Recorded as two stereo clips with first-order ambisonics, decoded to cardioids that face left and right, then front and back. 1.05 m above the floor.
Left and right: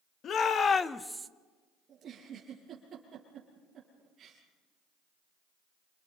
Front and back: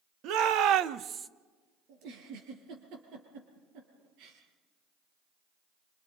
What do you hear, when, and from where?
0.2 s a shout: 145° left, 1.6 m; by 1.3 s 115° right, 0.6 m
1.9 s a giggle: 155° right, 5.5 m